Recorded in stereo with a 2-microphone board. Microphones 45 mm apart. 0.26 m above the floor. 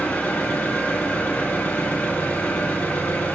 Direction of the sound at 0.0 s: 40° left (ahead or behind).